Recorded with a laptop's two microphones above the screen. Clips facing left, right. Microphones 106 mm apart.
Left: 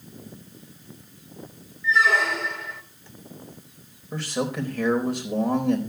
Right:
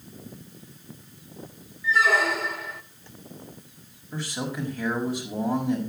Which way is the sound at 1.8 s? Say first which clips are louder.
Left 1 dB; 5° right (ahead or behind).